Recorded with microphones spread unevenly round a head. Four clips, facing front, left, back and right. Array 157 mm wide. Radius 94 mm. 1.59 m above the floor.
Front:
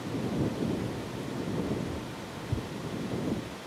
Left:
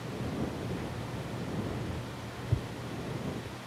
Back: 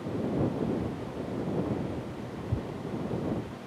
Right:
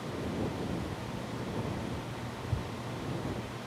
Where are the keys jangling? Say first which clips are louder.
Even, back 1 dB; 115° left; by 3.6 s 150° left.